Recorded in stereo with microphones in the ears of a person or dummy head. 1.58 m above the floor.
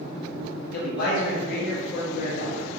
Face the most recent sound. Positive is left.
turn(degrees=55)  # may be behind; listen again after turning